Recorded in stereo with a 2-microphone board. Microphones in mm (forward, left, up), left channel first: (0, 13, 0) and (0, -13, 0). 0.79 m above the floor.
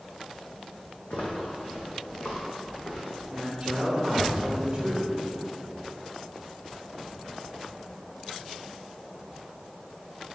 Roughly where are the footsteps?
Left.